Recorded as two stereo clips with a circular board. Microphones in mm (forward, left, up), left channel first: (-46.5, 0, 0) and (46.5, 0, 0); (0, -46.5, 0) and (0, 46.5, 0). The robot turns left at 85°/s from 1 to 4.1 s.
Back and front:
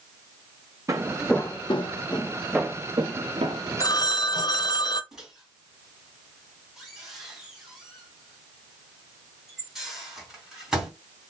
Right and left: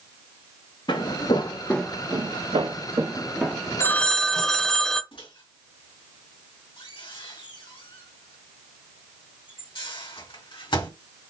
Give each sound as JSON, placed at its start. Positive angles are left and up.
{"t": 0.9, "sound": "footsteps", "azimuth_deg": -55, "distance_m": 0.9}
{"t": 3.8, "sound": "a phone ringing", "azimuth_deg": -145, "distance_m": 0.7}
{"t": 5.1, "sound": "a microwave", "azimuth_deg": -85, "distance_m": 2.5}